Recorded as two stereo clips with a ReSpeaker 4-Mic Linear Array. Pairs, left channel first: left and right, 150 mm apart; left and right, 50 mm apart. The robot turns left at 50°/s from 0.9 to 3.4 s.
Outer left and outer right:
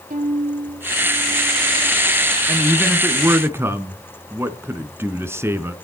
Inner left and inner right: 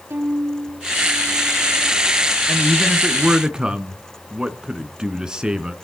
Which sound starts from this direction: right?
A violin, at 0.1 s.